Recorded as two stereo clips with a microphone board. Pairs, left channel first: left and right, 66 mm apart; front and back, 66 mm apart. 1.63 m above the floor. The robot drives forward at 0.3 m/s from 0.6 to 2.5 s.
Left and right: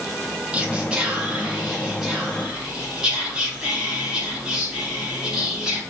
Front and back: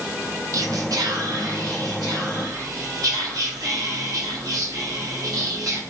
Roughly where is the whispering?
Behind.